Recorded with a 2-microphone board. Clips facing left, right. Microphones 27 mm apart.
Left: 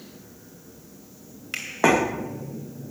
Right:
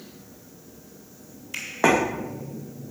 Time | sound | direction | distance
1.5 | a finger snap | 75° left (ahead or behind) | 2.5 m